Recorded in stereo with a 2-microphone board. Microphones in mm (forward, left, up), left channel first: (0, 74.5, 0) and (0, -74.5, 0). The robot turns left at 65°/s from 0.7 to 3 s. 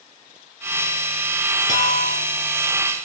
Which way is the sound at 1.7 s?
55° right (ahead or behind).